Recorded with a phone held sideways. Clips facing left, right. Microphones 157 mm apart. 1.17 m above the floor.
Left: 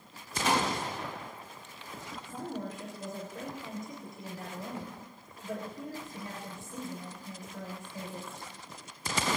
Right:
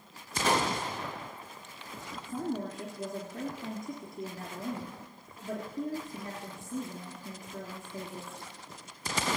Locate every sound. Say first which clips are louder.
0.4 s a gunshot: right 1 dB; 45° right (ahead or behind), 2.5 m
2.2 s a woman speaking: right 5 dB; 50° right (ahead or behind), 3 m